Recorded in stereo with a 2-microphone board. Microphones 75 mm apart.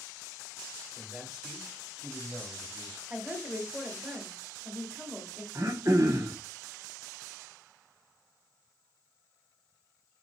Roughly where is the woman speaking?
Centre.